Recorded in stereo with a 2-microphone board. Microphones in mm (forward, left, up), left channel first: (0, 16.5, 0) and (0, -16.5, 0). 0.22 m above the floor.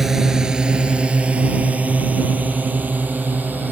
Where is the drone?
10° right (ahead or behind); by 3.7 s 60° right (ahead or behind).